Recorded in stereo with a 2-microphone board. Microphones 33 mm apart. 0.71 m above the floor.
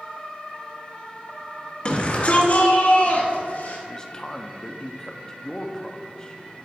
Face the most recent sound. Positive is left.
turn(degrees=15)  # may be behind; listen again after turning